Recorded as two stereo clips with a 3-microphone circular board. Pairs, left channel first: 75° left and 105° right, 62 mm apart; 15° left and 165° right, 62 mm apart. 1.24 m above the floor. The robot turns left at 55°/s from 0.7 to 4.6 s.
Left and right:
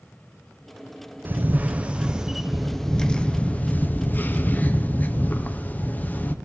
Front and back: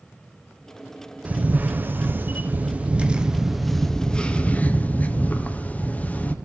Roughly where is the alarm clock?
I don't hear an alarm clock.